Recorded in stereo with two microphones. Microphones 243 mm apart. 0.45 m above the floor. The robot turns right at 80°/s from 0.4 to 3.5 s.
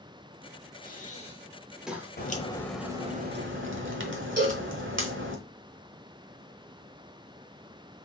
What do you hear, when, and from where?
0.8 s breathing: 35° left (ahead or behind), 1.0 m; by 2.1 s 15° right (ahead or behind), 1.0 m
2.2 s a crack: 135° left, 1.1 m; by 5.4 s 120° right, 1.1 m
4.4 s a cowbell: 45° right (ahead or behind), 2.5 m